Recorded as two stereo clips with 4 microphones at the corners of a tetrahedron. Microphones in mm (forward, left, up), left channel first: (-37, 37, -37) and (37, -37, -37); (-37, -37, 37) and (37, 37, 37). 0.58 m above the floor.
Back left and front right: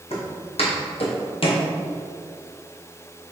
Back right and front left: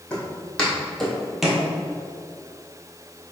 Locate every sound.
0.1 s footsteps: 150° left, 2.0 m; by 1.7 s 125° left, 0.9 m